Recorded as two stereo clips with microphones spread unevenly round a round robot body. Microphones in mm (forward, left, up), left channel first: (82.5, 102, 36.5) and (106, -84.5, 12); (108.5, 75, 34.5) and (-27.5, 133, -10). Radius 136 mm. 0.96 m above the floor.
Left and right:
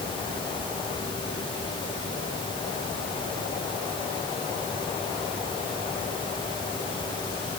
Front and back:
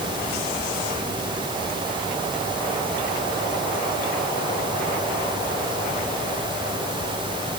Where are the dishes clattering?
No dishes clattering in this recording.